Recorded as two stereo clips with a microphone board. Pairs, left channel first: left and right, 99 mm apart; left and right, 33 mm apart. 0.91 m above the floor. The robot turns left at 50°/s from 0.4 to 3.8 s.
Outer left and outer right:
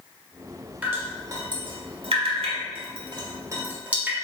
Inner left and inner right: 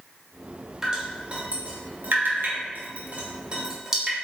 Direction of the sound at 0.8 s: 15° right (ahead or behind).